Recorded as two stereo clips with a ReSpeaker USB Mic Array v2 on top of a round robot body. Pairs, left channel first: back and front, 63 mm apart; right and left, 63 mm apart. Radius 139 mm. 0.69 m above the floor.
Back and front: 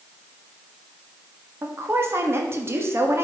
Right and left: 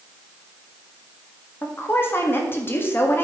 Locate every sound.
1.6 s a woman speaking: 40° right, 1.9 m